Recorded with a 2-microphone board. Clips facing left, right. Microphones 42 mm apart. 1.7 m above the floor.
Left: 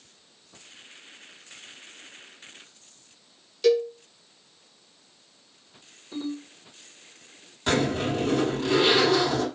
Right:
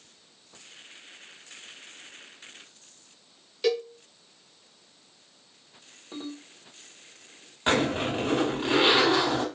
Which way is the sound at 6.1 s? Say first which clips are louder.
Left 6 dB; 40° right (ahead or behind).